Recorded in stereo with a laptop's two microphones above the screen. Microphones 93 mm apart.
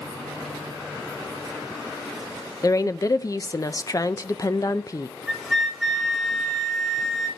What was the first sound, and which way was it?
A woman speaking, 35° left (ahead or behind).